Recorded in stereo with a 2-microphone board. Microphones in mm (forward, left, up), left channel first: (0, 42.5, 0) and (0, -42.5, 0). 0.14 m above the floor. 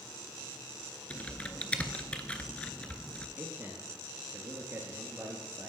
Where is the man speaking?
25° right (ahead or behind), 2.0 m.